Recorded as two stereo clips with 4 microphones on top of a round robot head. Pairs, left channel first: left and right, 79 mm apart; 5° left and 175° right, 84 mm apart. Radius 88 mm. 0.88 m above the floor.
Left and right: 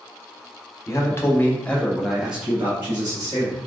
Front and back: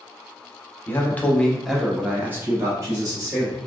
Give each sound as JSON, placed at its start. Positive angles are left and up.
{"t": 0.9, "sound": "a man speaking", "azimuth_deg": 60, "distance_m": 1.0}